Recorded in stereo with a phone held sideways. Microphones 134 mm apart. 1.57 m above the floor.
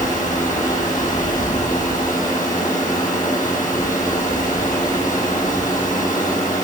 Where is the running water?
75° left (ahead or behind), 5.5 m.